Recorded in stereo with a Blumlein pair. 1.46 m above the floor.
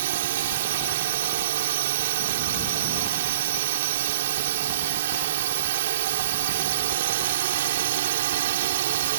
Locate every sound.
0.0 s a drone: 55° right